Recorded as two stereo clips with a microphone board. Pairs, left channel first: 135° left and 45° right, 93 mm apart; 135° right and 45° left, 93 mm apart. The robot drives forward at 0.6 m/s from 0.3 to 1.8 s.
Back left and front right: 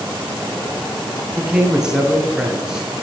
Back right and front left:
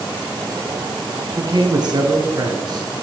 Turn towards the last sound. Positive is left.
turn(degrees=35)